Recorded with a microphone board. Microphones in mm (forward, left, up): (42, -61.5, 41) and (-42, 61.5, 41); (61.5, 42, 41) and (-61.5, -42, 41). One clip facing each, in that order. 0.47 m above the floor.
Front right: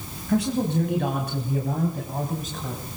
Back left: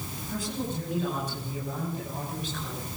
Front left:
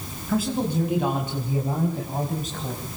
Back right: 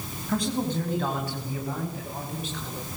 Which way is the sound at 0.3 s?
50° right.